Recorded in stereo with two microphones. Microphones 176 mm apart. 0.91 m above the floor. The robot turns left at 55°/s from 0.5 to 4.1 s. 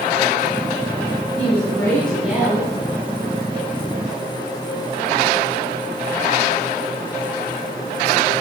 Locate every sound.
1.4 s a woman speaking: 45° left, 3.5 m; by 2.7 s 30° right, 3.5 m